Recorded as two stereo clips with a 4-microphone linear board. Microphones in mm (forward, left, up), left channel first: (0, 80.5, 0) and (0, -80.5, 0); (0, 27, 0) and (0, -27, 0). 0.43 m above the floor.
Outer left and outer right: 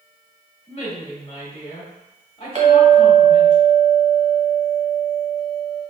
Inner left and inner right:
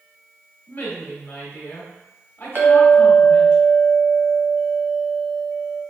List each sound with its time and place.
0.7 s a woman speaking: 40° left (ahead or behind), 1.6 m
2.5 s a clink: 45° right (ahead or behind), 1.1 m